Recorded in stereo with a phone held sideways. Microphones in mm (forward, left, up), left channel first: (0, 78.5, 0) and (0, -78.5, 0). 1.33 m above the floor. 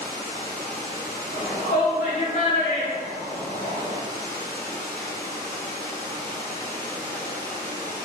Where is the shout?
70° left (ahead or behind), 1.4 m.